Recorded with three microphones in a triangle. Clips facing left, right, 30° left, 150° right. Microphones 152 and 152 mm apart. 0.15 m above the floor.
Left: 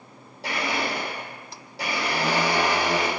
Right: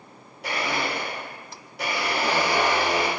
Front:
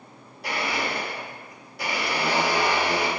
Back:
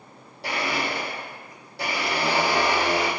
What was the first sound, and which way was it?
A blender, 150° left.